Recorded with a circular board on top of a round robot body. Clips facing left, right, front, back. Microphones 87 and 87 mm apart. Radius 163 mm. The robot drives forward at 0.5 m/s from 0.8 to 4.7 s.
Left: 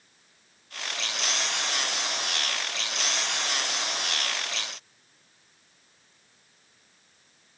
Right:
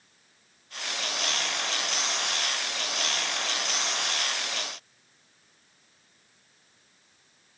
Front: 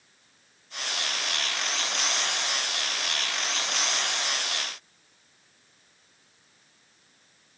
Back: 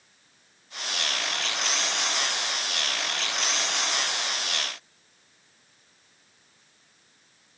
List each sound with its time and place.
Only background noise.